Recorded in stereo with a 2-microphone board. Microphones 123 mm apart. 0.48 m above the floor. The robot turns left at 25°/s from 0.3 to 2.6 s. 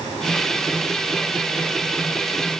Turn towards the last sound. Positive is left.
No sound to turn to.